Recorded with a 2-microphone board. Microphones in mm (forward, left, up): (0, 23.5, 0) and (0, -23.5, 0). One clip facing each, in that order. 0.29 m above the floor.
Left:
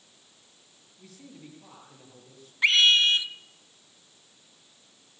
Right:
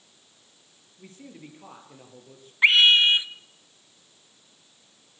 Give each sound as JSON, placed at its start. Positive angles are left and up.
{"t": 1.0, "sound": "a man speaking", "side_deg": -30, "distance_m": 6.0}
{"t": 2.6, "sound": "a scream", "side_deg": -25, "distance_m": 1.6}